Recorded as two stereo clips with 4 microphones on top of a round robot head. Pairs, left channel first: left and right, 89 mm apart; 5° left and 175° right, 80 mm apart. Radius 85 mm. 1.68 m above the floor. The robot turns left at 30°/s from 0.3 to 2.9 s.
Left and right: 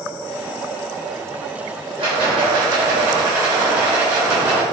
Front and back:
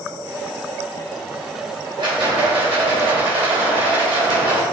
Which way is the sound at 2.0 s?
130° right.